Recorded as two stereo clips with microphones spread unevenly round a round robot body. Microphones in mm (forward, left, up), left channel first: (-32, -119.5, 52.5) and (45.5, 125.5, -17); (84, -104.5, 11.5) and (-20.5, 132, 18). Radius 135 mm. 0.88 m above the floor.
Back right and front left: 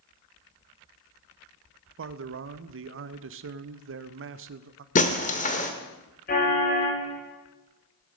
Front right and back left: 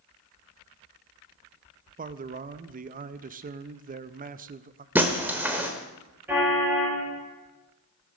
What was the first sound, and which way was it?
A man speaking, 55° left.